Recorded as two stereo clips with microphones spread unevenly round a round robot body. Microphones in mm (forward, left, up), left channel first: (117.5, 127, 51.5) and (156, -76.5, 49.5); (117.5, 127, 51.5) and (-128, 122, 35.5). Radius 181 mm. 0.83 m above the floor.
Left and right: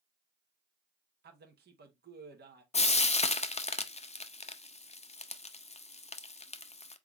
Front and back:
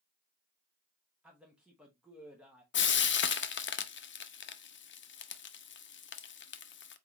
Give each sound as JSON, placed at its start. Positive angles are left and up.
{"t": 1.2, "sound": "a man speaking", "azimuth_deg": -95, "distance_m": 0.9}
{"t": 2.7, "sound": "frying", "azimuth_deg": 40, "distance_m": 0.6}